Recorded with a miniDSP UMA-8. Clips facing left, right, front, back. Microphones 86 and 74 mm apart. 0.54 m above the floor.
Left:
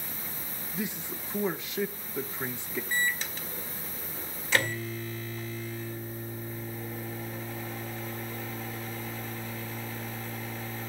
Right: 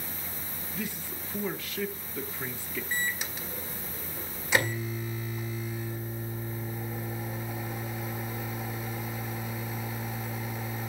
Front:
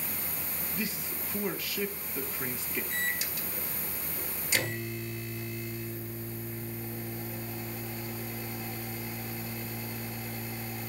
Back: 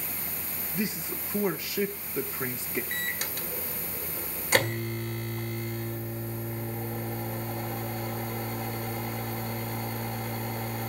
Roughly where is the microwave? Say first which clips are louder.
Left 2 dB, even; behind.